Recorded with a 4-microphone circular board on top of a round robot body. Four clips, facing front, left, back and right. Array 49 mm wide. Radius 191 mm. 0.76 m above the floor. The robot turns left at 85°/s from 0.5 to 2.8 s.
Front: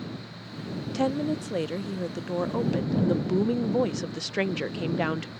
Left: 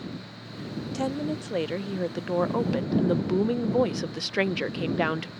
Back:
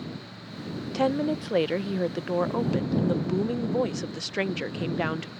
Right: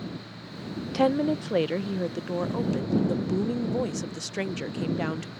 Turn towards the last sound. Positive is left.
turn(degrees=95)